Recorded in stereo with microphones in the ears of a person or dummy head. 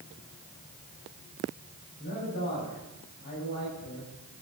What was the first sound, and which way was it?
A man speaking, 55° left (ahead or behind).